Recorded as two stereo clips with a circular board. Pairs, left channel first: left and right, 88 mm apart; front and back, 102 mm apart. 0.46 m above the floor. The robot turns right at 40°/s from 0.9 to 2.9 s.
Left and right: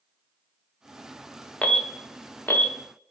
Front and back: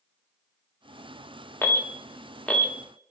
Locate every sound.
1.6 s an alarm: 30° left, 0.6 m; by 2.7 s 75° left, 0.6 m